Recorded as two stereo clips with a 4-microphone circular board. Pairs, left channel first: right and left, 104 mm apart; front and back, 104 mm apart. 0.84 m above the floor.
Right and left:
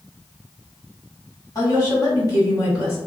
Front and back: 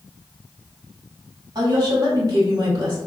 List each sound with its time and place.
1.6 s a woman speaking: 135° right, 1.5 m